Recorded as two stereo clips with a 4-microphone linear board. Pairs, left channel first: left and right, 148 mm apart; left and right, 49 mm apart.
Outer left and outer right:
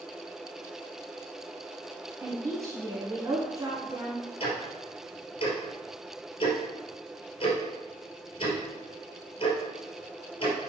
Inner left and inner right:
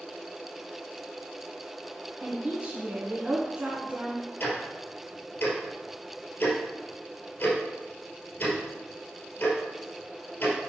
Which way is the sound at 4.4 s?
40° left (ahead or behind).